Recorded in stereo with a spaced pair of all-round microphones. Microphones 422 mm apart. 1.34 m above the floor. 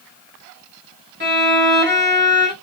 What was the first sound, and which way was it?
A violin, 25° right (ahead or behind).